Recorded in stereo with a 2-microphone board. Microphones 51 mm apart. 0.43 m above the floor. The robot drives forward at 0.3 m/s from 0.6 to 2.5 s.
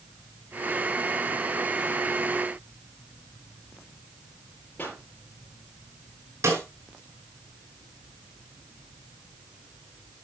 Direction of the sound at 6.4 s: 65° right (ahead or behind).